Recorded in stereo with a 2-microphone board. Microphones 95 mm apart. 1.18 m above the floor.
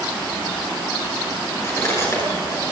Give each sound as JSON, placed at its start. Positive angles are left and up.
{"t": 1.6, "sound": "cutlery clinking", "side_deg": 30, "distance_m": 9.0}